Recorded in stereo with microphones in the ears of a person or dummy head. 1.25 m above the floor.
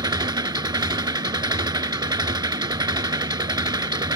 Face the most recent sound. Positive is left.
turn(degrees=-25)  # may be behind; listen again after turning